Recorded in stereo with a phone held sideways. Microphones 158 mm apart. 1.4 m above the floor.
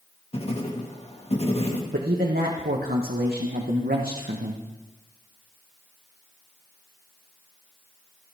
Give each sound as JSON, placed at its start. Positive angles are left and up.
{"t": 0.3, "sound": "writing", "side_deg": 45, "distance_m": 1.8}
{"t": 1.9, "sound": "a man speaking", "side_deg": -85, "distance_m": 1.1}